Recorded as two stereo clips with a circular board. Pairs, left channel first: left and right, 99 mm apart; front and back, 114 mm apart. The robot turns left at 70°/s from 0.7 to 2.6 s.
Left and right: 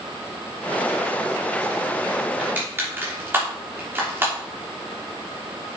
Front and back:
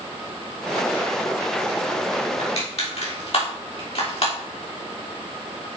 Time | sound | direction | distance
2.4 | crushing | 10° right | 3 m